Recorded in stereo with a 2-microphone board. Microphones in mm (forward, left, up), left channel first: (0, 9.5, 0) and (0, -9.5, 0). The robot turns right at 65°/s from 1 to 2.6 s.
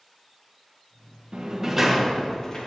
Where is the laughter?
I don't hear laughter.